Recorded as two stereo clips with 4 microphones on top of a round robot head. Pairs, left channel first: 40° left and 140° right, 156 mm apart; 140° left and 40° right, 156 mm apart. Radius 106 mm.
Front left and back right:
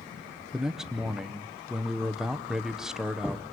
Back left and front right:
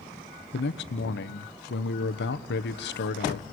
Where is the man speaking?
130° left, 1.2 m.